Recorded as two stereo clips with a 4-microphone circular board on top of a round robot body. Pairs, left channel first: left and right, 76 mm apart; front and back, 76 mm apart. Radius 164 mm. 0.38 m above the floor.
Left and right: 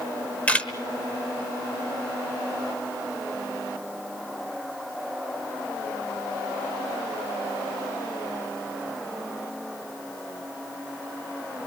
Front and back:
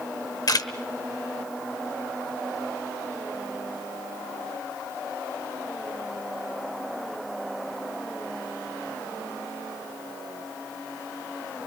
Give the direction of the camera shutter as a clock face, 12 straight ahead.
11 o'clock.